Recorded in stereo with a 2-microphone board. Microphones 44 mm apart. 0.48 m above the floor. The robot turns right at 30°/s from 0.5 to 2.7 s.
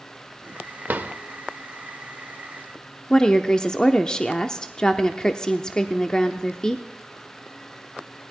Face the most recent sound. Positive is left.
turn(degrees=20)  # may be behind; listen again after turning